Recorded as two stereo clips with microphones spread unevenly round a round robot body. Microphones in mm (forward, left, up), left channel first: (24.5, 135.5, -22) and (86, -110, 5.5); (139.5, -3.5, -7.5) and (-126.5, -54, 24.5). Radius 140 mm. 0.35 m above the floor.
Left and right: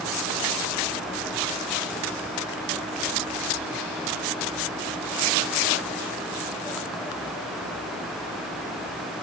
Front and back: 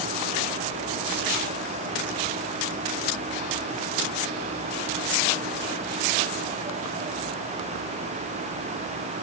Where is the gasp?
I don't hear a gasp.